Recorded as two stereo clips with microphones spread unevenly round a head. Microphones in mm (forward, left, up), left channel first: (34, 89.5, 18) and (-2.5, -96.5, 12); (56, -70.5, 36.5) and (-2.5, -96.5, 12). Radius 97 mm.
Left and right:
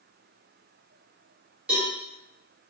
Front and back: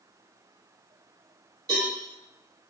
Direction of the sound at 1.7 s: 175° left.